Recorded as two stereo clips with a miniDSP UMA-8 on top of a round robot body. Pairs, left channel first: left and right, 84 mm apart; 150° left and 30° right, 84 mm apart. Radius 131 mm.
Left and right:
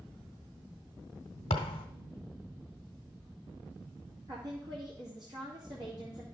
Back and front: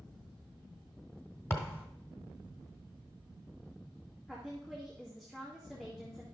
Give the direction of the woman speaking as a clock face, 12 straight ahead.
4 o'clock.